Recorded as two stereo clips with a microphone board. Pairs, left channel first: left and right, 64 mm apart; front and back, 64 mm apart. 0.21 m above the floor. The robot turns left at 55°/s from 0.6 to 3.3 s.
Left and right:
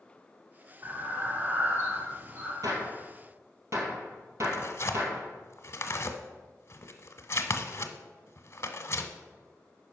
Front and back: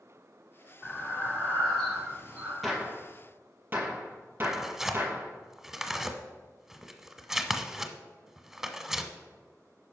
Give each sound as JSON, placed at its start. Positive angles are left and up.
{"t": 0.8, "sound": "breathing", "azimuth_deg": -30, "distance_m": 2.0}
{"t": 2.6, "sound": "a gunshot", "azimuth_deg": -90, "distance_m": 2.0}
{"t": 4.4, "sound": "tearing paper", "azimuth_deg": 100, "distance_m": 0.8}